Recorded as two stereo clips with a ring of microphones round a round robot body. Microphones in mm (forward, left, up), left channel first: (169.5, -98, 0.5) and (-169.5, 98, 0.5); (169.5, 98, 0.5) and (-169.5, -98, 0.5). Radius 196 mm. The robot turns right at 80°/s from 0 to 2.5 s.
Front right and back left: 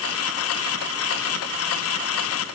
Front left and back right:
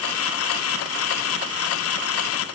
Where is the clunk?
No clunk in this recording.